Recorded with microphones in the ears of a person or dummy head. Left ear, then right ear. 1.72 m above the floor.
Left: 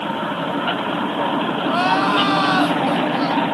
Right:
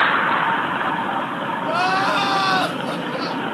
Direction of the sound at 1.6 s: Centre (ahead or behind).